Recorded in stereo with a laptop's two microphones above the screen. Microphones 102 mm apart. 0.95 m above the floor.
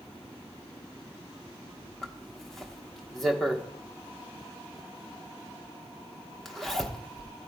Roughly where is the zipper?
Centre.